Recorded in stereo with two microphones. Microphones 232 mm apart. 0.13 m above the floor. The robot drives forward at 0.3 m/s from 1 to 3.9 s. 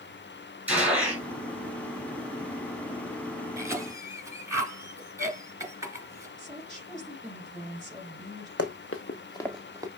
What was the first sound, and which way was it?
A gunshot, 5° right (ahead or behind).